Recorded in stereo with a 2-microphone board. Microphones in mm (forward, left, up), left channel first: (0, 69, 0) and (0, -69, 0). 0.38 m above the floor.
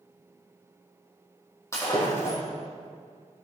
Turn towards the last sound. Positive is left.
turn(degrees=20)  # may be behind; listen again after turning